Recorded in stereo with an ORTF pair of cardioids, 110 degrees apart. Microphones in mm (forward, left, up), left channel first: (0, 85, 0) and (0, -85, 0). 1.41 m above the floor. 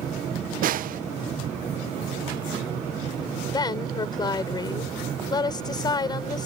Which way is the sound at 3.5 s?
25° left.